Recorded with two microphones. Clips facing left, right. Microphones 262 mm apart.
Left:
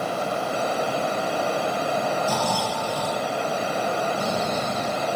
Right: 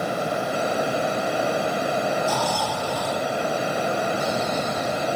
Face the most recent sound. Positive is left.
turn(degrees=65)  # may be behind; listen again after turning